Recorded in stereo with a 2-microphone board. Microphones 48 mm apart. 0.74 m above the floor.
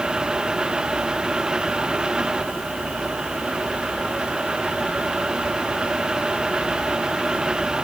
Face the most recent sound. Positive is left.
No sound to turn to.